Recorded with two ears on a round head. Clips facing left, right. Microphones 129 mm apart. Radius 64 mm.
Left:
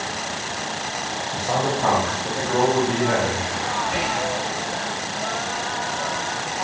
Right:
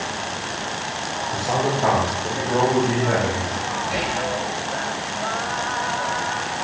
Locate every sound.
1.3 s a man speaking: 5° right (ahead or behind), 0.9 m; by 3.7 s 35° right (ahead or behind), 2 m
3.8 s whispering: 20° right (ahead or behind), 1.9 m